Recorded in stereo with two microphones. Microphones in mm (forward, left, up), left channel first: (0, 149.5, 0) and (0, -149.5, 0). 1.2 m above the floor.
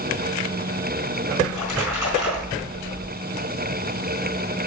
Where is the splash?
75° right (ahead or behind), 3.5 m.